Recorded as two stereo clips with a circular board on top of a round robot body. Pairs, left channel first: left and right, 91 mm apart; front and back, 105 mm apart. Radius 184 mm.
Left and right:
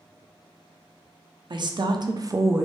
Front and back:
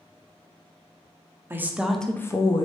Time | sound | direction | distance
1.5 | a woman speaking | 115° right | 0.7 m